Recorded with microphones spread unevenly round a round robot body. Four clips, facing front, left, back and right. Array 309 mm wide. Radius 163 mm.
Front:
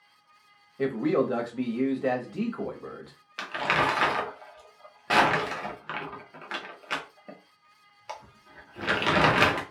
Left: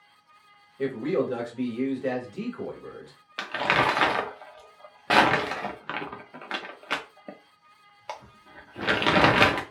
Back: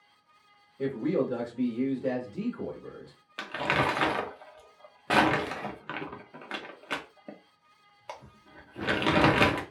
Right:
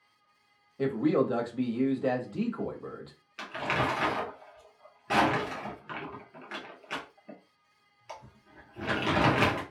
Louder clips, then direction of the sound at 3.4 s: Left 6 dB, front 2 dB; 90° left.